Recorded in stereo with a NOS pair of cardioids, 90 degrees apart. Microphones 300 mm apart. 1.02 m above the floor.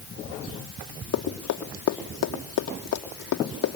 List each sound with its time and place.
1.1 s running footsteps: 60° left, 3 m